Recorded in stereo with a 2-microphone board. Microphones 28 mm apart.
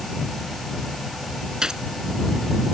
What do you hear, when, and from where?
1.6 s a gunshot: 25° right (ahead or behind)